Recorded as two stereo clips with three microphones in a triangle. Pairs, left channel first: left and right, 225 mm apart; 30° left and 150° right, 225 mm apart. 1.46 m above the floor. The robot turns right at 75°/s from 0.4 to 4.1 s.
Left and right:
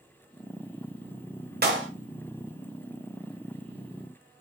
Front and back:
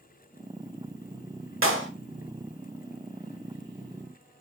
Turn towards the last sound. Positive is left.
turn(degrees=55)